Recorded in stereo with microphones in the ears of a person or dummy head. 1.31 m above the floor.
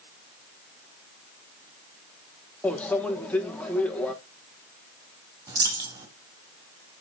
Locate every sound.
2.6 s a microwave: 10° left (ahead or behind), 1.2 m
5.5 s a dropped coin: 20° right (ahead or behind), 3 m